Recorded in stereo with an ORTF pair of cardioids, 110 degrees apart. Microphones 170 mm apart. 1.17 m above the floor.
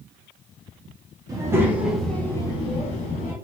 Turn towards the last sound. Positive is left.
turn(degrees=55)